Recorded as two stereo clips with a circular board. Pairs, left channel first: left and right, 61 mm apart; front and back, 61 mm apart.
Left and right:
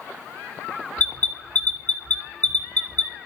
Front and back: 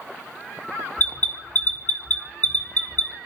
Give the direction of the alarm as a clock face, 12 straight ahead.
11 o'clock.